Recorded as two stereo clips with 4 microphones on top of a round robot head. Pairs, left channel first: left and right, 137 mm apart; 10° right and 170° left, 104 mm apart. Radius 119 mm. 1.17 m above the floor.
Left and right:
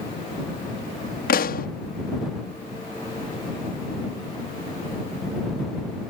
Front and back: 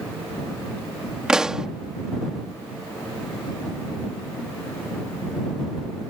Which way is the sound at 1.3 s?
85° left.